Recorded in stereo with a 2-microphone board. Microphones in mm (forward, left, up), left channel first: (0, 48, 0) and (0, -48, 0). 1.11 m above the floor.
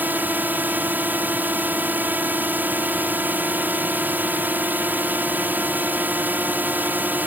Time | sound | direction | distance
0.0 | a drone | 20° right (ahead or behind) | ?